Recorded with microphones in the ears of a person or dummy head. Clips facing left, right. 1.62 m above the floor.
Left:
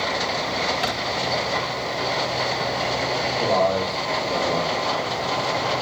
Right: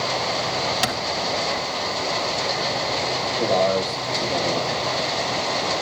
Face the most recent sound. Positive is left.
turn(degrees=-15)  # may be behind; listen again after turning